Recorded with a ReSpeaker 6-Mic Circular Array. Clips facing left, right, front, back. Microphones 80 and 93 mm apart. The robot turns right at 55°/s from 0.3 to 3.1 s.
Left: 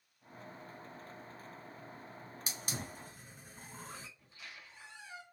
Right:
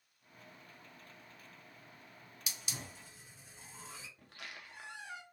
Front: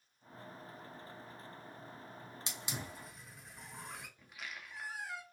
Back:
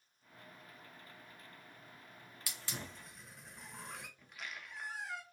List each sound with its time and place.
2.5 s a hiss: 55° left, 0.6 m; by 4.1 s 90° left, 0.6 m
4.2 s a squeak: 90° right, 0.6 m